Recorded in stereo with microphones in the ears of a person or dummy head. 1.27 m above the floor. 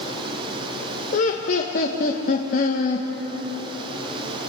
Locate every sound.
1.1 s laughter: 50° left (ahead or behind), 1.6 m